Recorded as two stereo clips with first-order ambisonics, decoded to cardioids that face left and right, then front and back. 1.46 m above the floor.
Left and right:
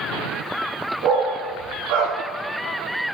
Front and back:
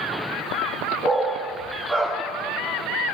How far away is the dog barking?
About 7.5 m.